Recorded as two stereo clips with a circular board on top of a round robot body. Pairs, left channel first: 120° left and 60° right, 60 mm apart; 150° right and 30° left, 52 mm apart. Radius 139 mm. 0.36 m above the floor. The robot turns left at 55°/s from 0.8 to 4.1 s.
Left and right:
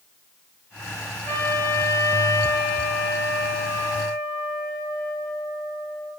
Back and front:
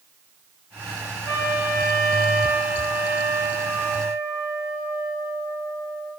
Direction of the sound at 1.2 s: 175° right.